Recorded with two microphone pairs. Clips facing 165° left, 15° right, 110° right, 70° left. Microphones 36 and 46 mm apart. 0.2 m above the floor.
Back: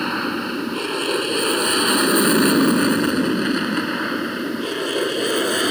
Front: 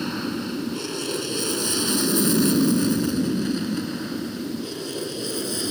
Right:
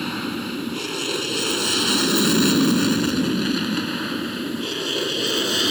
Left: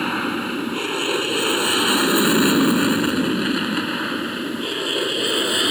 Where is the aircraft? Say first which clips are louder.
Back 5 dB, left 4 dB; 125° left; by 5.7 s 145° left.